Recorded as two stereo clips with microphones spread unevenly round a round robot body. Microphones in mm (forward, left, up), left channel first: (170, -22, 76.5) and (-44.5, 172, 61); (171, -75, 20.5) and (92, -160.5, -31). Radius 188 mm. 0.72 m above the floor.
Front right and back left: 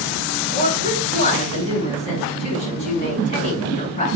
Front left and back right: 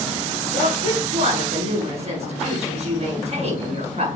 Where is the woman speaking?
110° right, 6 m.